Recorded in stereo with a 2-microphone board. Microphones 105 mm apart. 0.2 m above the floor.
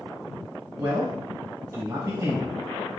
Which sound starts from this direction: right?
A man speaking, at 0.8 s.